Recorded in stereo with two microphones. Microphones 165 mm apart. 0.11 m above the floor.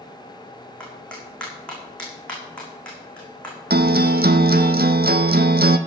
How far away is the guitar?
About 0.8 m.